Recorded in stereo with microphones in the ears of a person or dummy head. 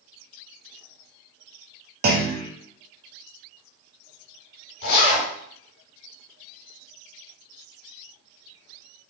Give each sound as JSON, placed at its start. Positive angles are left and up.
{"t": 2.0, "sound": "a clunk", "side_deg": -55, "distance_m": 0.8}
{"t": 4.8, "sound": "a zipper", "side_deg": 65, "distance_m": 2.5}